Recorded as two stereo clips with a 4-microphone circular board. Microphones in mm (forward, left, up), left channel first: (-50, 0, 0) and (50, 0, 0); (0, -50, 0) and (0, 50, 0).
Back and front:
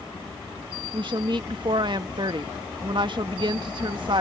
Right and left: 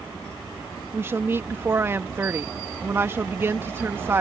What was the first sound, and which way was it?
A woman speaking, 25° left.